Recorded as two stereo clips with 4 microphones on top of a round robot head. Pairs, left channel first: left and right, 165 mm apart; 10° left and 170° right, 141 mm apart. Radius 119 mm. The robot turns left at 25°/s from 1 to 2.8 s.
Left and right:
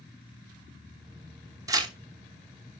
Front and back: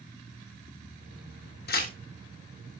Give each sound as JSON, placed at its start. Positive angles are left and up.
{"t": 1.7, "sound": "tearing paper", "azimuth_deg": -25, "distance_m": 0.9}